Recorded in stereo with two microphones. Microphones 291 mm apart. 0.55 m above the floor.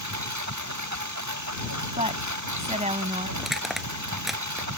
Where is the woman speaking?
25° right (ahead or behind).